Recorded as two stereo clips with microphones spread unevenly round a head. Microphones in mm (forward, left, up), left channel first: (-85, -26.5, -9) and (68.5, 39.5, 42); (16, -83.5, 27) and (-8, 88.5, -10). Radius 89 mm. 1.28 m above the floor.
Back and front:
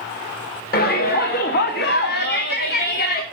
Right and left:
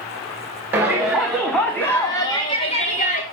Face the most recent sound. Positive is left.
turn(degrees=-130)